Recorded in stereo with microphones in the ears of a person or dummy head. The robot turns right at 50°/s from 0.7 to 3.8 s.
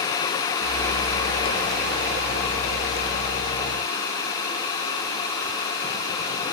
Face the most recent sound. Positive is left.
No sound to turn to.